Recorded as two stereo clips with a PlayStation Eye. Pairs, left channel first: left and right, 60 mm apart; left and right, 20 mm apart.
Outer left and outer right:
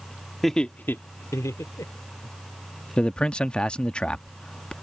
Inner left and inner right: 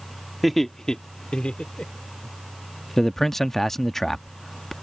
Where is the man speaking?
15° left (ahead or behind).